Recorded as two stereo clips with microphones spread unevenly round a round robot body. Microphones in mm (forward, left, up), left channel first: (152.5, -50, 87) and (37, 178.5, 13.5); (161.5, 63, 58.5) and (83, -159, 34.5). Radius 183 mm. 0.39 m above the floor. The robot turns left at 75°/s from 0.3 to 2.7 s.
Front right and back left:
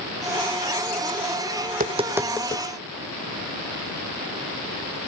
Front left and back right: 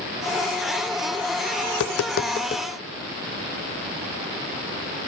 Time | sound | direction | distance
1.7 | tapping | 80° left | 1.5 m